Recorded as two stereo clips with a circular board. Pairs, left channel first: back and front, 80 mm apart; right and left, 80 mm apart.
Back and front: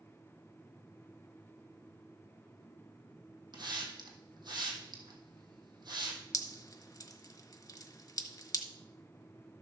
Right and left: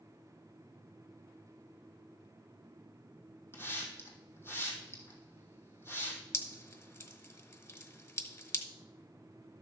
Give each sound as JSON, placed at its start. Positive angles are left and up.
{"t": 3.5, "sound": "a hiss", "azimuth_deg": -30, "distance_m": 2.5}
{"t": 6.3, "sound": "dripping", "azimuth_deg": -140, "distance_m": 1.3}